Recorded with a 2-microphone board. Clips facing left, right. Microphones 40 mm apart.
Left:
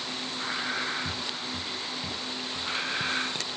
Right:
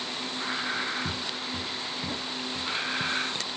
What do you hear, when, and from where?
1.1 s footsteps: 40° right (ahead or behind); by 3.2 s 20° right (ahead or behind)